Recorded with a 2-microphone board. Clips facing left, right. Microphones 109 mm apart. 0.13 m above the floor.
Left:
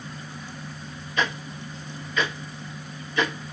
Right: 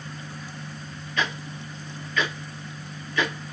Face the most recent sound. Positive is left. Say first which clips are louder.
# left 2 dB
turn(degrees=20)  # may be behind; listen again after turning